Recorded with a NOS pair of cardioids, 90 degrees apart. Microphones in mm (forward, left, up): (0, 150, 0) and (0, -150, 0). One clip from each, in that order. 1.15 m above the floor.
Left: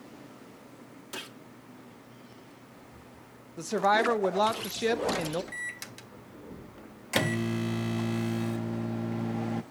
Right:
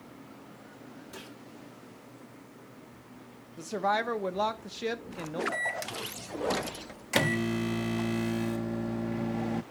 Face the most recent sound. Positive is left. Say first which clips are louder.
# right 6 dB
turn(degrees=-5)